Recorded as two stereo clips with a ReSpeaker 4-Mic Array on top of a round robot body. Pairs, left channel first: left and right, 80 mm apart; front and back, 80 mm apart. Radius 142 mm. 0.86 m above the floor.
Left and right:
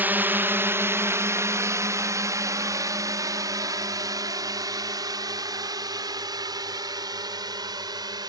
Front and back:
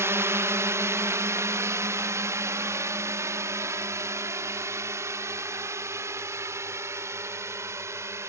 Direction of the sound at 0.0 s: 145° right.